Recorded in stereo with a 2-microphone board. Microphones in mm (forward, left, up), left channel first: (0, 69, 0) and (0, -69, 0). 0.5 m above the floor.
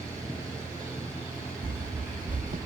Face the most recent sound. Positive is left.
turn(degrees=-65)  # may be behind; listen again after turning